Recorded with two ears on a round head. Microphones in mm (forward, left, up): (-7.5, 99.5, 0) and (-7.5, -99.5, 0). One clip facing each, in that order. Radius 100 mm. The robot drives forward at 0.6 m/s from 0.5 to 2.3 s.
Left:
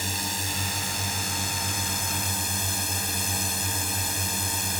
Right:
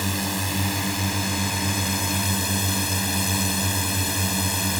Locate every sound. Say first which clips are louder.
0.0 s a drone: right 7 dB; 50° right (ahead or behind); by 4.8 s 55° right (ahead or behind)